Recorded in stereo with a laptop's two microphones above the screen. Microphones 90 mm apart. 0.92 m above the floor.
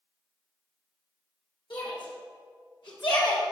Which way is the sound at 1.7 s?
65° left (ahead or behind).